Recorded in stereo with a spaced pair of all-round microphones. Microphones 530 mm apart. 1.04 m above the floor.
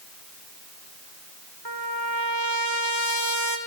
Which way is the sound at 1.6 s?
40° right (ahead or behind).